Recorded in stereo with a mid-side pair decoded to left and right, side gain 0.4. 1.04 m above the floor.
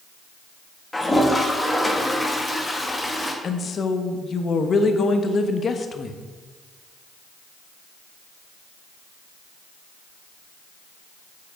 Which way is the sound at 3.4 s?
50° left.